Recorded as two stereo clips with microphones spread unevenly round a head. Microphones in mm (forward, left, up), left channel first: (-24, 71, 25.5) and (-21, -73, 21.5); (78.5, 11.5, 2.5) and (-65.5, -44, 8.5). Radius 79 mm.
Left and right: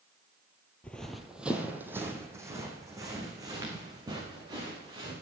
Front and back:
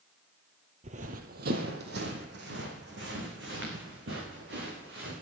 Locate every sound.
0.8 s running footsteps: 170° left, 1.5 m; by 5.1 s 150° right, 7 m